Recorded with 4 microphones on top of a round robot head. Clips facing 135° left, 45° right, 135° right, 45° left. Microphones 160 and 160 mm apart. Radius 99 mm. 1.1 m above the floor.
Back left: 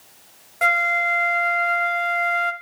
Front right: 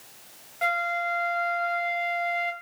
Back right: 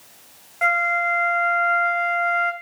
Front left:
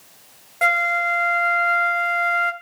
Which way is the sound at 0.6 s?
95° left.